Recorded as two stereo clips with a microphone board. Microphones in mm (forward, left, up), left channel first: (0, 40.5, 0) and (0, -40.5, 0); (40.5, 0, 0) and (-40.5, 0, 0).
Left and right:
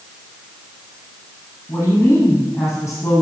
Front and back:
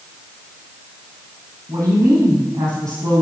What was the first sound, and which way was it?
A woman speaking, 150° left.